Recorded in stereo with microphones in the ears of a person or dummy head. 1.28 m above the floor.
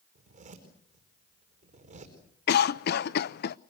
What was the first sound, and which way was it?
A zipper, 35° right (ahead or behind).